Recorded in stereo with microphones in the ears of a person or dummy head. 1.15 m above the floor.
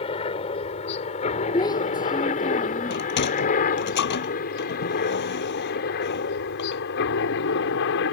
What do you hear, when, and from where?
0.0 s a helicopter: 30° left (ahead or behind); by 8.1 s 65° left (ahead or behind)
1.5 s a child speaking: 25° left (ahead or behind)
2.9 s a sliding door: 60° left (ahead or behind)